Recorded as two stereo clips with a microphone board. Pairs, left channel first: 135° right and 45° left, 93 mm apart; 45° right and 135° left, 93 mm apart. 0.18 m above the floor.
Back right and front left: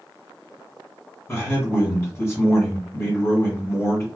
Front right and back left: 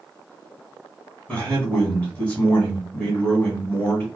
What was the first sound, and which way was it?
A man speaking, 105° right.